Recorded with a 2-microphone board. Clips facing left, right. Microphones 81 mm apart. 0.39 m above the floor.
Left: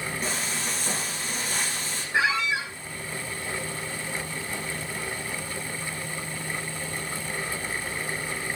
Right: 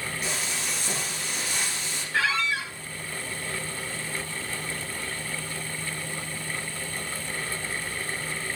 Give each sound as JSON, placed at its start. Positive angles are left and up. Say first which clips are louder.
{"t": 0.2, "sound": "frying", "louder": "left 1 dB", "side_deg": 40, "distance_m": 5.5}
{"t": 2.1, "sound": "a squeak", "louder": "left 1 dB", "side_deg": 20, "distance_m": 1.6}